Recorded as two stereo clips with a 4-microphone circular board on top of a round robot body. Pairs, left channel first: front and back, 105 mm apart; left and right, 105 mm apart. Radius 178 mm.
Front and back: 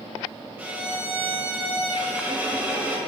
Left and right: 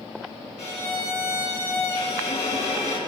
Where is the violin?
105° left, 2.5 m.